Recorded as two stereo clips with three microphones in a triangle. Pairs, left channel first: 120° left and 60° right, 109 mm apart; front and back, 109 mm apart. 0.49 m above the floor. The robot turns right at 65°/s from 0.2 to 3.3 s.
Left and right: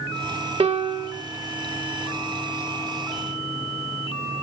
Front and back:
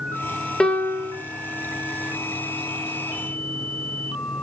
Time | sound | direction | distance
0.6 | a piano | 85° right | 0.6 m